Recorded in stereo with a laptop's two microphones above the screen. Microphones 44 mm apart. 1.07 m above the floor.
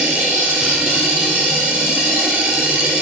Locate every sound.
0.0 s a machine running: 20° right (ahead or behind), 1.3 m